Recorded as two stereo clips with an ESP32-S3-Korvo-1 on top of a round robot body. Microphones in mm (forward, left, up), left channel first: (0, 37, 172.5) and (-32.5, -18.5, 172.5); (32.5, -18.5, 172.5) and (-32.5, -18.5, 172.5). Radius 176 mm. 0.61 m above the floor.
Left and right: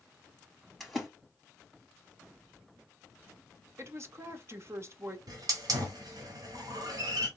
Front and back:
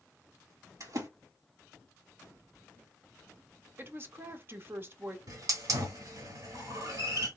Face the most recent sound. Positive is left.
turn(degrees=-145)